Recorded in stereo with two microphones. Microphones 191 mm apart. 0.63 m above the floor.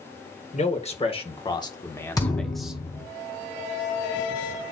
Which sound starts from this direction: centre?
A thud, at 2.2 s.